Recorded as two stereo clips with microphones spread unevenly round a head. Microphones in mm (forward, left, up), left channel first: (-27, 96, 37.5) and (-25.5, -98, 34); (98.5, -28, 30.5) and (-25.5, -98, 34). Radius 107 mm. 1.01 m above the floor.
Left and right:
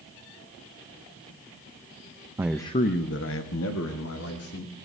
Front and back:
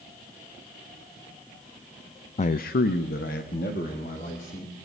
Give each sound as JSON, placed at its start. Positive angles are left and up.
{"t": 2.4, "sound": "a man speaking", "azimuth_deg": -15, "distance_m": 0.5}